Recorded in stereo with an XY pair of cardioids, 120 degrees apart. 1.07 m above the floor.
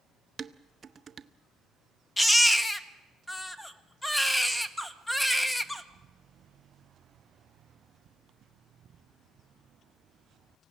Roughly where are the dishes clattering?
Ahead right.